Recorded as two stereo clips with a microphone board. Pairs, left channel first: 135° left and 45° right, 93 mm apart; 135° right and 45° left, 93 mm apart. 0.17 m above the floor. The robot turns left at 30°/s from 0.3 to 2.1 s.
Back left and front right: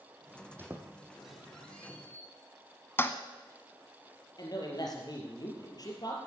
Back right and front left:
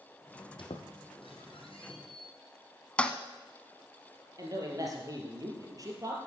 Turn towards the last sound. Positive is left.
turn(degrees=95)